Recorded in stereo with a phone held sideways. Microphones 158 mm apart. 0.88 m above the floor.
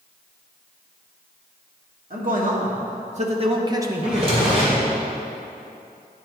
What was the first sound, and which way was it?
A man speaking, 60° right (ahead or behind).